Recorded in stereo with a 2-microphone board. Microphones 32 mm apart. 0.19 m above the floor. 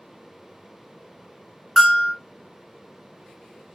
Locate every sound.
1.8 s a bell: 5° left (ahead or behind), 1.4 m